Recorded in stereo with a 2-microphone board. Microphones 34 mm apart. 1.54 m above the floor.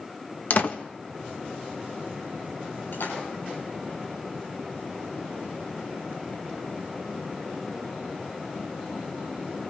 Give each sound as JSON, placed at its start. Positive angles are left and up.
{"t": 0.5, "sound": "a door slam", "side_deg": 50, "distance_m": 1.6}
{"t": 2.9, "sound": "a splash", "side_deg": 70, "distance_m": 10.0}